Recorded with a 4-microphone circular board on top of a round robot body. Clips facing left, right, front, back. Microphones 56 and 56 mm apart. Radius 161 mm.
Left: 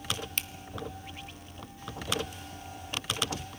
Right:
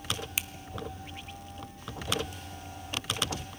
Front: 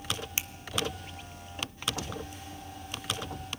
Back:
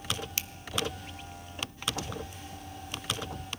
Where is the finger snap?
20° right, 0.9 m.